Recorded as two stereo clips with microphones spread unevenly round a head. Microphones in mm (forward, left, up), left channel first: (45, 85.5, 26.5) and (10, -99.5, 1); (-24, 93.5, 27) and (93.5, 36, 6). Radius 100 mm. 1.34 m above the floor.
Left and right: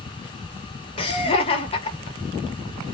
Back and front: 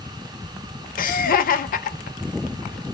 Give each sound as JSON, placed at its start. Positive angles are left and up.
{"t": 1.0, "sound": "laughter", "azimuth_deg": 145, "distance_m": 1.0}